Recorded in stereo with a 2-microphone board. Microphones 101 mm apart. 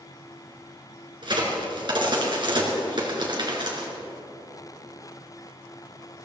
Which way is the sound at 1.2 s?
50° right (ahead or behind).